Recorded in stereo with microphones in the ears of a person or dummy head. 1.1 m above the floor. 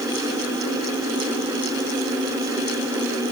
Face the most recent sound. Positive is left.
No sound to turn to.